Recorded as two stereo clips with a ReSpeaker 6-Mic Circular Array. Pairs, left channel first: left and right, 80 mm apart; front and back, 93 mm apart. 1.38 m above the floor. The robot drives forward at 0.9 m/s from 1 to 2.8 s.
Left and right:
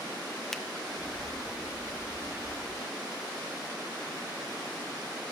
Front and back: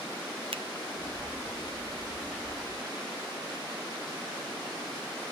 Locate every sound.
0.5 s a finger snap: 175° left, 0.7 m